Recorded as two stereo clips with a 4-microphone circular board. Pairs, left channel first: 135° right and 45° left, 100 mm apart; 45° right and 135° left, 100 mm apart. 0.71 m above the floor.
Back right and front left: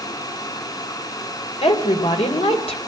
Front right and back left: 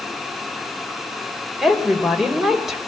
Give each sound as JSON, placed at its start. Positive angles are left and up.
{"t": 1.6, "sound": "a woman speaking", "azimuth_deg": -140, "distance_m": 3.0}